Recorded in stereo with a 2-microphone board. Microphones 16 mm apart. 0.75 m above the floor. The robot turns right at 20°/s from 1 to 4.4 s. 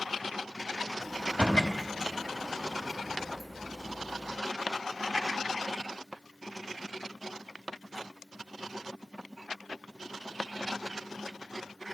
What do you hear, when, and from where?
1.2 s a door slam: 70° left (ahead or behind), 4 m; by 1.7 s 60° left (ahead or behind), 4 m